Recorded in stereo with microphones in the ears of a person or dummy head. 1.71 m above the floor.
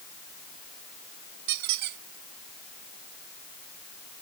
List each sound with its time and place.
1.5 s a squeak: 60° right (ahead or behind)